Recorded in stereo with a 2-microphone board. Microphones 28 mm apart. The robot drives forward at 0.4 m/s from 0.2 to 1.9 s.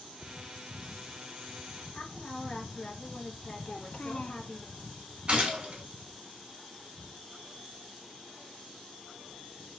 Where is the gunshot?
45° right (ahead or behind), 2.5 m.